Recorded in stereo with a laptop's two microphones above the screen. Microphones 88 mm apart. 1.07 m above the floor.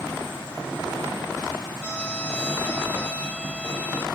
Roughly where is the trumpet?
Centre.